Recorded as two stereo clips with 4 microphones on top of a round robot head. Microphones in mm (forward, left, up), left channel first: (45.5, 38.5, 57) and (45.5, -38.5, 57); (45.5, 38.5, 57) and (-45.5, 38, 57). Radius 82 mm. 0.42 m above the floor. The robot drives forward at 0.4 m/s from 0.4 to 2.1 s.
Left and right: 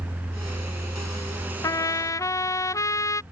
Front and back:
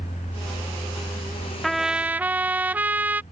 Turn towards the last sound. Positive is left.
turn(degrees=115)